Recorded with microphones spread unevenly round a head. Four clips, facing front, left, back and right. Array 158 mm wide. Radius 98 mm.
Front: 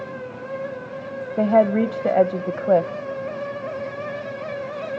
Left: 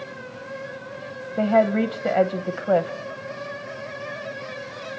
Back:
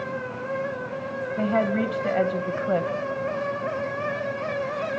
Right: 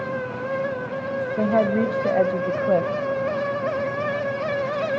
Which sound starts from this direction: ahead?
A woman speaking, at 1.4 s.